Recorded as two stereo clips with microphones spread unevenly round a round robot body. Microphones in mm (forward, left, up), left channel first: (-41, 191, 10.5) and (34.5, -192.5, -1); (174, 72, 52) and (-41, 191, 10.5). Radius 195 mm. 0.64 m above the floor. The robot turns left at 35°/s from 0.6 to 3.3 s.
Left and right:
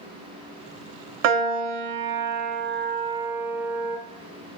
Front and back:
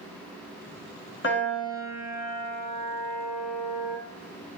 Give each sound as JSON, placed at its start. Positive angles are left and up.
{"t": 1.2, "sound": "a piano", "azimuth_deg": -90, "distance_m": 0.9}